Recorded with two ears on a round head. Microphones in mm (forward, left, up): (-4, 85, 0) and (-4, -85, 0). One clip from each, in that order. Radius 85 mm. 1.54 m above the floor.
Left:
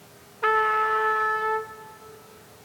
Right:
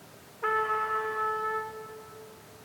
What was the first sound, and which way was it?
A trumpet, 70° left (ahead or behind).